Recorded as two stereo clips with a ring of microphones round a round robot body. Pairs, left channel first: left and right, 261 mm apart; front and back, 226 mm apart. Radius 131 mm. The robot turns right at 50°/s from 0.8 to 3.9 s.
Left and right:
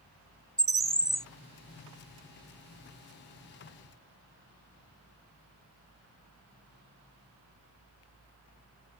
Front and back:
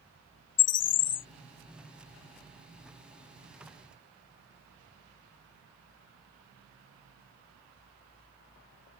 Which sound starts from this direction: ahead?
A bird, at 0.6 s.